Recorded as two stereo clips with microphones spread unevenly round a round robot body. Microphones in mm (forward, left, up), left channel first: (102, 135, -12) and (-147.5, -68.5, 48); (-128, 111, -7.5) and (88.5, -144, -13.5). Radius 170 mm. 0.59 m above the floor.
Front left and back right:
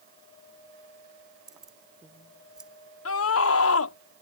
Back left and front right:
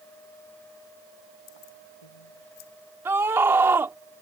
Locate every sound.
1.5 s keys jangling: 130° left
3.0 s a scream: 30° left